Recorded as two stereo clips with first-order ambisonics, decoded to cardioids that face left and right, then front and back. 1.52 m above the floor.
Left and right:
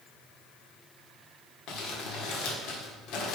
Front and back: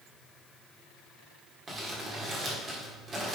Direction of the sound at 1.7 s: 110° left.